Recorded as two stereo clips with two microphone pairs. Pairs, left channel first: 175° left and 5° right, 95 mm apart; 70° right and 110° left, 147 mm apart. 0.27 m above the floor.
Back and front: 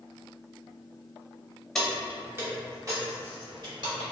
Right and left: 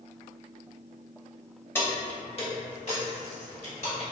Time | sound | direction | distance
1.8 | keys jangling | 110° right | 0.6 m